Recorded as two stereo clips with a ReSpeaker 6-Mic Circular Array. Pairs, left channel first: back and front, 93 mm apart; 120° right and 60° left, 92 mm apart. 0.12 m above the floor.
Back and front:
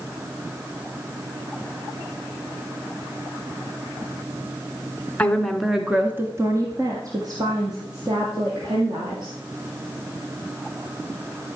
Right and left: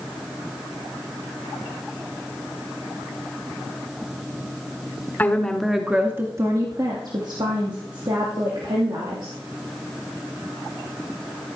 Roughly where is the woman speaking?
Behind right.